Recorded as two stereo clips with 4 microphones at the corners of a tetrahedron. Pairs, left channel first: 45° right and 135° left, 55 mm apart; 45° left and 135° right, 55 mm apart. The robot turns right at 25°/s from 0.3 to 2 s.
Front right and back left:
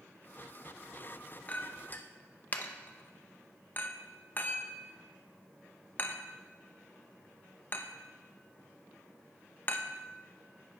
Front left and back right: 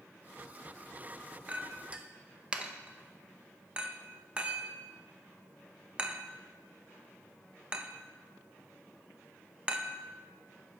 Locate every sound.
1.5 s a clink: 95° right, 0.5 m; by 10.0 s 80° right, 0.5 m